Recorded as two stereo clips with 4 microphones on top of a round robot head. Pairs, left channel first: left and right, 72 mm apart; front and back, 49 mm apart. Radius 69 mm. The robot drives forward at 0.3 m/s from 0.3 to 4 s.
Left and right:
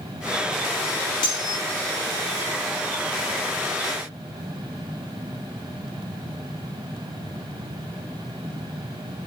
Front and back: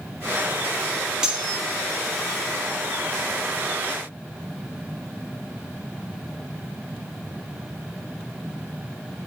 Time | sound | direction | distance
1.2 | cutlery clinking | 105° left | 0.9 m